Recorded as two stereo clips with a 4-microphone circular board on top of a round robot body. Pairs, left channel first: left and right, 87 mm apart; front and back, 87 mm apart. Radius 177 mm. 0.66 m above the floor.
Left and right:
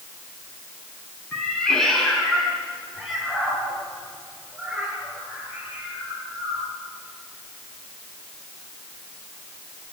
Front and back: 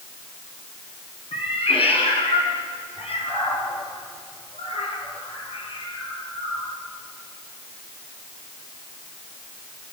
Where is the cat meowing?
10° left, 5.5 m; by 6.7 s 20° right, 11.5 m.